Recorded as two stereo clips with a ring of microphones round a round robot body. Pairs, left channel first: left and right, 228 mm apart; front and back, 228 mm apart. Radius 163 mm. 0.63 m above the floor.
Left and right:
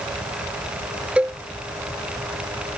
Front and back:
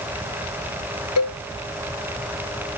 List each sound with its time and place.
1.2 s a cowbell: 5° right